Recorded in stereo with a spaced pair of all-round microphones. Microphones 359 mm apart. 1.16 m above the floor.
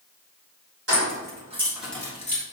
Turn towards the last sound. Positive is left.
turn(degrees=25)  # may be behind; listen again after turning